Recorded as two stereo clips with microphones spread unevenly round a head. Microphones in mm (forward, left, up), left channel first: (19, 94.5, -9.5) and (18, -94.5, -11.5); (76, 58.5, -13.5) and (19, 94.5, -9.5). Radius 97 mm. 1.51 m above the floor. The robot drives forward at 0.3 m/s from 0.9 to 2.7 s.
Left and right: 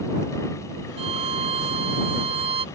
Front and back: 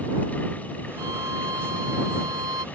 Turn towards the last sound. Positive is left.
turn(degrees=-155)